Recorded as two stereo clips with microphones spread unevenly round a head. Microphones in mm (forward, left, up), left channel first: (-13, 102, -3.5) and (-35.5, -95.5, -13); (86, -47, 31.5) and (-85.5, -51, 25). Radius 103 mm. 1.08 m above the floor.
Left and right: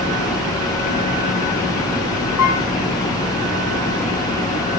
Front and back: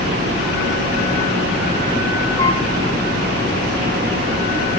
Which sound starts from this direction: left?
A piano, at 2.4 s.